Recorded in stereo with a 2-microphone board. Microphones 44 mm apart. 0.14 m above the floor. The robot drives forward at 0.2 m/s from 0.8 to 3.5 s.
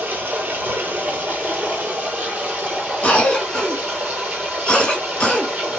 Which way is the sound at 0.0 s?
40° right (ahead or behind).